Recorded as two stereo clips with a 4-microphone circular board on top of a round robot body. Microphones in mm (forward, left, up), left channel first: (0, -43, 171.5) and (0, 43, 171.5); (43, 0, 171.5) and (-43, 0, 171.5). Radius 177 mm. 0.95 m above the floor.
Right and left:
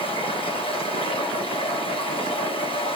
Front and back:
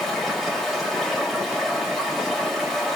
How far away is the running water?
About 3.5 m.